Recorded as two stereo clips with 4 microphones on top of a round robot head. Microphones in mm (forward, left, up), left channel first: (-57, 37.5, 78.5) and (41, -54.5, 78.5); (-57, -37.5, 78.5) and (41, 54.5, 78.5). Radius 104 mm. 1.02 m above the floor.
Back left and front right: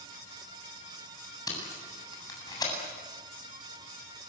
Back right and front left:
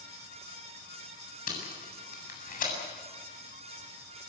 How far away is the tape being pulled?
About 8 m.